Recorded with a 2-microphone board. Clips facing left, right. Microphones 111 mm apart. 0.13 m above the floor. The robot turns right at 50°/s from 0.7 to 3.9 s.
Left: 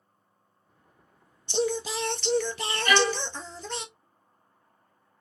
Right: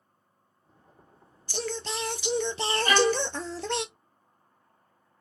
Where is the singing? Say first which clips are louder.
Left 6 dB; 155° left, 0.6 m; by 3.9 s 85° right, 0.6 m.